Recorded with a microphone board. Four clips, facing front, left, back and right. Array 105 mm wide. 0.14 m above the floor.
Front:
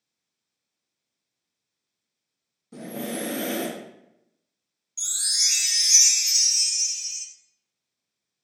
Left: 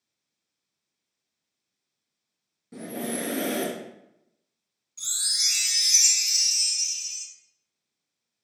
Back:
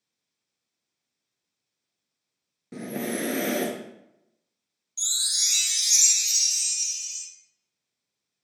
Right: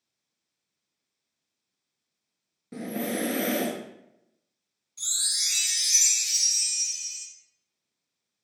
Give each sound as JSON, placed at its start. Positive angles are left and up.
{"t": 2.7, "sound": "breathing", "azimuth_deg": -150, "distance_m": 0.9}
{"t": 5.0, "sound": "a chime", "azimuth_deg": 20, "distance_m": 1.1}